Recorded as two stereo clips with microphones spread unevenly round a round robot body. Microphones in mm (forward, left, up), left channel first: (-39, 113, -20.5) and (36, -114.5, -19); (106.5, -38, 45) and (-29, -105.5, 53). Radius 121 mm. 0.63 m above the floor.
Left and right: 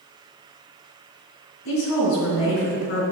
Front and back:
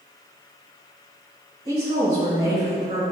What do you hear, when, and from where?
1.6 s a woman speaking: 135° left, 2.5 m